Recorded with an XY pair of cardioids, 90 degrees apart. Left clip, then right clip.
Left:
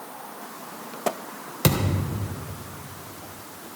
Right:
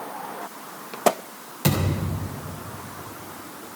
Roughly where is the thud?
Ahead left.